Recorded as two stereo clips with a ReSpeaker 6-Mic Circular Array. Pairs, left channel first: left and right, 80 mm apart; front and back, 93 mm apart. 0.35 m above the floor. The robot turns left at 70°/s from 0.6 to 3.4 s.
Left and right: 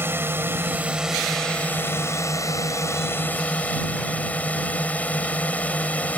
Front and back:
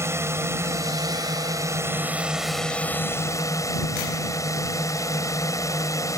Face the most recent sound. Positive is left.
turn(degrees=25)